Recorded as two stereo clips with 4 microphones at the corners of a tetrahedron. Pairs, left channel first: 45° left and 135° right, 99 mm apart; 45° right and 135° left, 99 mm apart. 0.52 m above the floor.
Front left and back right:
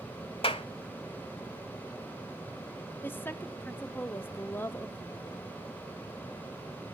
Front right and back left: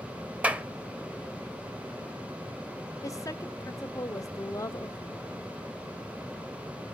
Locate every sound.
0.4 s a clap: 60° left, 1.3 m
3.0 s a woman speaking: 15° right, 1.0 m